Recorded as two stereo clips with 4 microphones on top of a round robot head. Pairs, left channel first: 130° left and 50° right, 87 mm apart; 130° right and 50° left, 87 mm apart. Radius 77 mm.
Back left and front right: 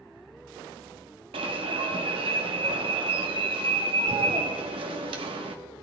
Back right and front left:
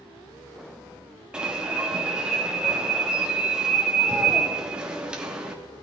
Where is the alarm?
30° right, 1.4 m.